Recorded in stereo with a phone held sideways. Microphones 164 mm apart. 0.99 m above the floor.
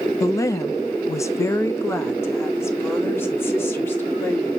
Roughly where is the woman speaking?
Centre.